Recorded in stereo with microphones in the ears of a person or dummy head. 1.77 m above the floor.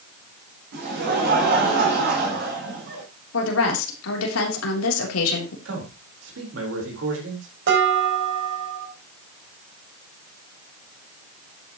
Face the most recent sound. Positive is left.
turn(degrees=-70)  # may be behind; listen again after turning